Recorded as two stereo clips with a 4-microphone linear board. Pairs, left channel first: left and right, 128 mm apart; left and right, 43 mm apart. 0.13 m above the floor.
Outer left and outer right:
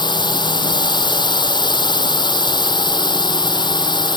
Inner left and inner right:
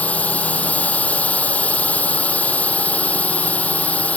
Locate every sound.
0.0 s a drone: 35° left (ahead or behind)